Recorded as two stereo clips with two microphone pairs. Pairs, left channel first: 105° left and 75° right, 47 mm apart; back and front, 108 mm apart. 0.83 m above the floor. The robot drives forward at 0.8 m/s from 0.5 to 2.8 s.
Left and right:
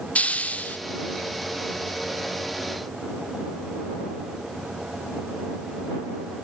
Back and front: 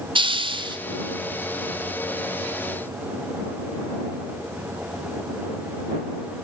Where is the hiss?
40° left, 1.7 m; by 0.8 s 45° left, 1.5 m.